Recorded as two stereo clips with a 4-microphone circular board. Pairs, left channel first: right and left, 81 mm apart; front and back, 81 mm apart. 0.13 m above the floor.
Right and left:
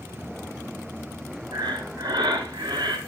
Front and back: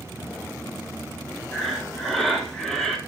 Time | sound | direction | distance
1.5 | breathing | 90° left | 1.4 m